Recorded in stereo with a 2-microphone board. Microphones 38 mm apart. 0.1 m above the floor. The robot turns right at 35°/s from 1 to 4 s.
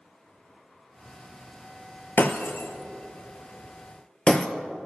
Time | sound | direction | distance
2.2 | breaking glass | 60° left (ahead or behind) | 0.5 m